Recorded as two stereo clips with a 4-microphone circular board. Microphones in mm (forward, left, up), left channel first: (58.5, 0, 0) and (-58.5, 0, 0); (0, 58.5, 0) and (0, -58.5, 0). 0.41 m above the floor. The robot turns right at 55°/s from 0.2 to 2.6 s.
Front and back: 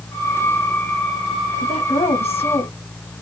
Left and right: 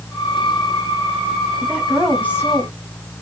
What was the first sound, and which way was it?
A woman speaking, 20° right.